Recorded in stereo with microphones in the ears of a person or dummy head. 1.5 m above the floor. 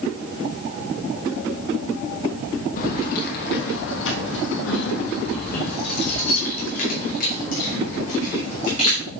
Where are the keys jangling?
50° left (ahead or behind), 1.3 m; by 9.0 s 45° left (ahead or behind), 3.5 m.